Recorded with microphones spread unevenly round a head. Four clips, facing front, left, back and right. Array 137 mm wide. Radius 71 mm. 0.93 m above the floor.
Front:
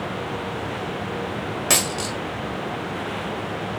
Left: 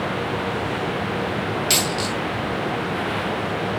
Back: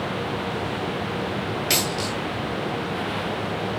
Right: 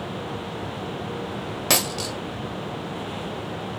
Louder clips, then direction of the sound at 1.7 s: Left 3 dB, even; 50° right.